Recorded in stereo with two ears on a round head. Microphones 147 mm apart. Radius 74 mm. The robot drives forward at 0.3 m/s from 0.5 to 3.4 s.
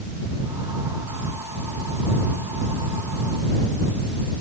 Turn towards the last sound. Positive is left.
No sound to turn to.